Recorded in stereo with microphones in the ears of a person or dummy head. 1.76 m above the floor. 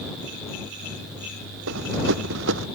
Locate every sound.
1.7 s running footsteps: 75° right (ahead or behind)